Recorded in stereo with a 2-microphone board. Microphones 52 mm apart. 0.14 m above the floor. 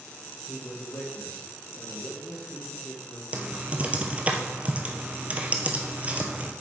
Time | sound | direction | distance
0.5 | a man speaking | 60° left (ahead or behind) | 4 m
3.3 | typing on a keyboard | 25° right (ahead or behind) | 1.2 m